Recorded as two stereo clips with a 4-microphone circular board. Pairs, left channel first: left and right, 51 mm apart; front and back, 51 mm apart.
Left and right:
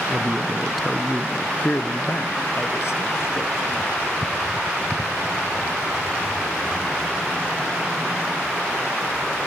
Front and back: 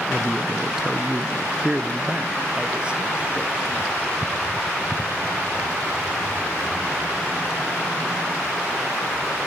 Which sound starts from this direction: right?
A man speaking, at 0.1 s.